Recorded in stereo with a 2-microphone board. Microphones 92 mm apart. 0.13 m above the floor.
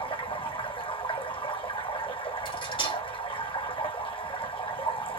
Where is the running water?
70° left (ahead or behind), 1.3 m.